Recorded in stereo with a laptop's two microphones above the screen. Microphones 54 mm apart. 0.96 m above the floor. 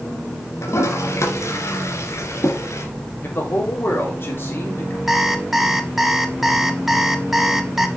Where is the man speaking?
45° left (ahead or behind), 3 m.